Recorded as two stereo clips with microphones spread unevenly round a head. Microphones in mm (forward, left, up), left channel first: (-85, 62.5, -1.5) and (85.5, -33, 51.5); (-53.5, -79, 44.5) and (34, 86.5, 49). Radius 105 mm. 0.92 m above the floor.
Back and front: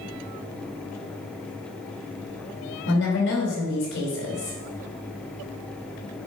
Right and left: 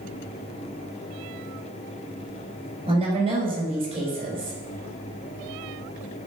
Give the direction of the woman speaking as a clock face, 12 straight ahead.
8 o'clock.